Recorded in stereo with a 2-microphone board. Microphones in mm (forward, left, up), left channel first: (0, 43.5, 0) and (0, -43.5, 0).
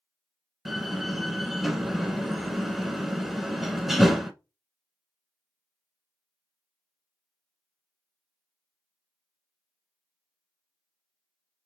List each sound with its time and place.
0.7 s a door slam: centre (ahead or behind), 0.9 m